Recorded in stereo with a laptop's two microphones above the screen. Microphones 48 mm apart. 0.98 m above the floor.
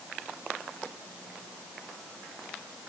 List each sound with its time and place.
Only background noise.